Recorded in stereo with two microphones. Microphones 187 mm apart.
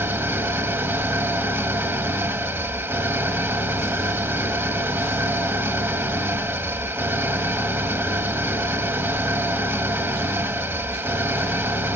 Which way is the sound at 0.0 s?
15° right (ahead or behind).